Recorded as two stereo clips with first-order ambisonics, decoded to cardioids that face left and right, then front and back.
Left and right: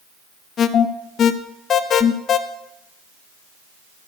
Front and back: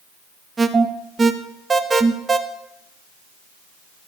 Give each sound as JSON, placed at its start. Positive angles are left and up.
{"t": 0.6, "sound": "an alarm", "azimuth_deg": 115, "distance_m": 0.8}